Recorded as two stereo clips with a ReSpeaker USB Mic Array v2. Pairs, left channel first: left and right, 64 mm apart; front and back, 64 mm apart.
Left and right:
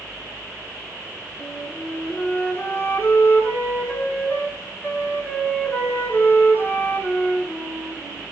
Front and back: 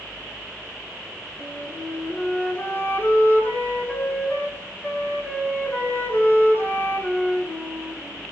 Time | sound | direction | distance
1.4 | a flute | 45° left | 2.5 m